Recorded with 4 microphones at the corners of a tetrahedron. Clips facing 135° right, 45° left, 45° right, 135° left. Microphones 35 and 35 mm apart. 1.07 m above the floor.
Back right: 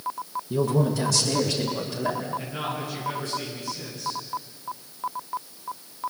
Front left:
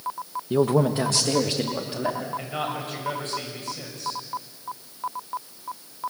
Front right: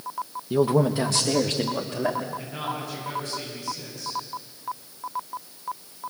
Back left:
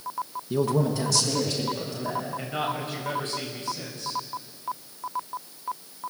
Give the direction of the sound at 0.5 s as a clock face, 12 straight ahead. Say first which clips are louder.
Front left 3 dB, front right 4 dB; 11 o'clock.